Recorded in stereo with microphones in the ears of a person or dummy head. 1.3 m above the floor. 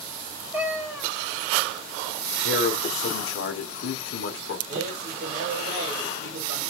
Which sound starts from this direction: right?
A man speaking, at 4.7 s.